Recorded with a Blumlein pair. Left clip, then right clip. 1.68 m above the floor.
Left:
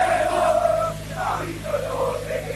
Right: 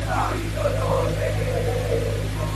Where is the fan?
70° right, 1.3 m.